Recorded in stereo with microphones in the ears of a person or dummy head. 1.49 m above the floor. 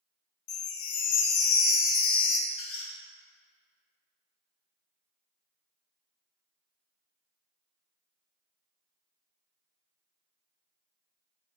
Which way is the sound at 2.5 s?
75° left (ahead or behind).